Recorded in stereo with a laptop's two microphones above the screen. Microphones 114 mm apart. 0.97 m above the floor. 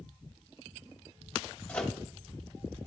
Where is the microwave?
10° left (ahead or behind), 0.7 m.